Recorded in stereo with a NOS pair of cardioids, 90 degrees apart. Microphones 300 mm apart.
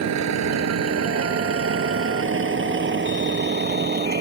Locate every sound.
0.0 s a vehicle: 65° right; by 4.2 s 30° right